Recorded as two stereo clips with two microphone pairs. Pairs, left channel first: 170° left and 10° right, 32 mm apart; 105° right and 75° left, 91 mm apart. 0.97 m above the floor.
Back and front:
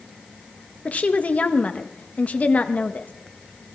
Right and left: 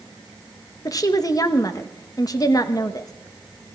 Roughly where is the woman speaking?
Behind right.